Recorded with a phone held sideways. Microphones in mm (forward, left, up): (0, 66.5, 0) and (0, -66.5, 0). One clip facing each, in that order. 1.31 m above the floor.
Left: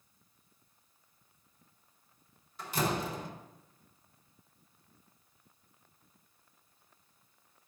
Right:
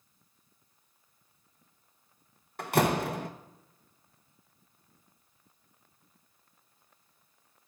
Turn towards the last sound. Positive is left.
turn(degrees=-65)  # may be behind; listen again after turning